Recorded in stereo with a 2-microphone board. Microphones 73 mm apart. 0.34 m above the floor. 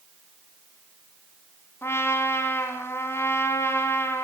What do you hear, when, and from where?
1.8 s a trumpet: 35° left (ahead or behind), 2.5 m